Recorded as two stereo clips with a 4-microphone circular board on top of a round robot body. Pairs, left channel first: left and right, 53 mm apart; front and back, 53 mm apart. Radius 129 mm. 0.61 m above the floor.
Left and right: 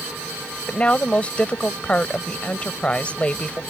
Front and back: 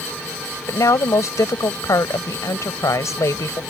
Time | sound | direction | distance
0.7 | a woman speaking | 20° left | ?